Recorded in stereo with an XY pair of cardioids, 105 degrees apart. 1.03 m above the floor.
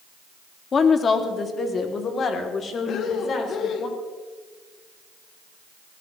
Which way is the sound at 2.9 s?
65° left.